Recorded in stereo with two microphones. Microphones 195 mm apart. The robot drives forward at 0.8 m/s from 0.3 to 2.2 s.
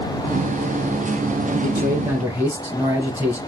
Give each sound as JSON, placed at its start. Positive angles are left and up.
{"t": 1.5, "sound": "a man speaking", "side_deg": -10, "distance_m": 1.6}